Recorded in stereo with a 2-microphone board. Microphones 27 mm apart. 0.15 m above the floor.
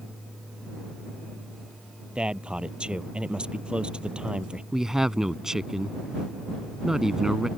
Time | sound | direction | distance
2.1 | a man speaking | 40° right (ahead or behind) | ?
4.7 | a woman speaking | 20° right (ahead or behind) | ?